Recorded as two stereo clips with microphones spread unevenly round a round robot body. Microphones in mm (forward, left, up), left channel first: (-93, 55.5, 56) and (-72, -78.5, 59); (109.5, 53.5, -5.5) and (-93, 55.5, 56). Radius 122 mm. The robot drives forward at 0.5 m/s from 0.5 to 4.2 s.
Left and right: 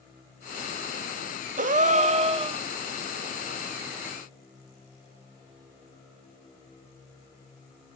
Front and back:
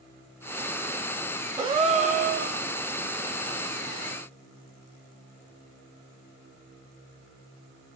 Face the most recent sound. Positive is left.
turn(degrees=-150)